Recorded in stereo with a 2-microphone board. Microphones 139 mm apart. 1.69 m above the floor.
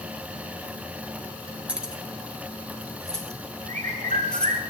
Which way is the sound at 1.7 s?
5° right (ahead or behind).